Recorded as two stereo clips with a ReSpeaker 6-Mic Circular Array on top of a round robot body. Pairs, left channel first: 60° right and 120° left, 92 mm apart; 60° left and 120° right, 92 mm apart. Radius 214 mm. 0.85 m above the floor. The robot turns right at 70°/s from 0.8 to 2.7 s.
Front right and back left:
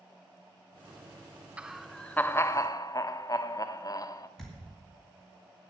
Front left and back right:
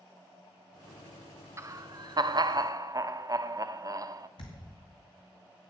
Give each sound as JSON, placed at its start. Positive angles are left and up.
{"t": 1.6, "sound": "laughter", "azimuth_deg": -165, "distance_m": 0.7}
{"t": 4.4, "sound": "a thud", "azimuth_deg": 30, "distance_m": 2.0}